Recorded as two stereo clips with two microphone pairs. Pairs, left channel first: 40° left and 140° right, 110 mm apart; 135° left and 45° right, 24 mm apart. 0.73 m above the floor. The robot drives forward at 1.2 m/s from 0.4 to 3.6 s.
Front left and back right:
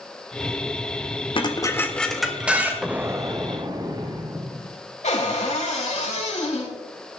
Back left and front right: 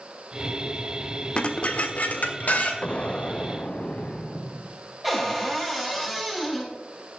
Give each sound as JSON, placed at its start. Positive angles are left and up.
{"t": 1.4, "sound": "dishes clattering", "azimuth_deg": 85, "distance_m": 1.1}
{"t": 2.8, "sound": "an explosion", "azimuth_deg": 135, "distance_m": 0.5}
{"t": 5.0, "sound": "a cupboard door", "azimuth_deg": 50, "distance_m": 4.0}